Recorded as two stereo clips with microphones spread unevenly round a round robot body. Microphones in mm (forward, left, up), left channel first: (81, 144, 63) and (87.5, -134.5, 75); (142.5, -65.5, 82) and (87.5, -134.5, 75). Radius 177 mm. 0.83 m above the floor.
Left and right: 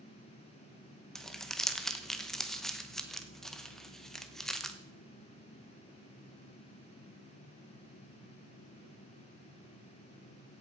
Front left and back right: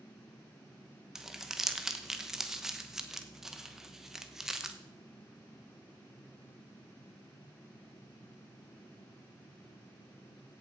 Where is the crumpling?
170° left, 1.0 m.